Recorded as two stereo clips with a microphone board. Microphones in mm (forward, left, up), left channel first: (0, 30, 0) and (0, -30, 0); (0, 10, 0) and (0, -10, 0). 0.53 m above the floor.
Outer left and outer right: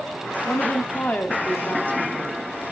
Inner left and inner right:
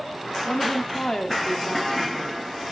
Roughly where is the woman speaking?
Left.